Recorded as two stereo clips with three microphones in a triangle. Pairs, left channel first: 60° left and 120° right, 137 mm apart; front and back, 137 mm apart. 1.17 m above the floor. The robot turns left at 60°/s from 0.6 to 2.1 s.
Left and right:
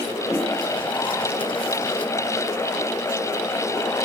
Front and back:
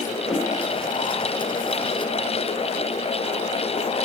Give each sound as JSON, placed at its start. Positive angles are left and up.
{"t": 0.2, "sound": "a whoosh", "azimuth_deg": 95, "distance_m": 3.0}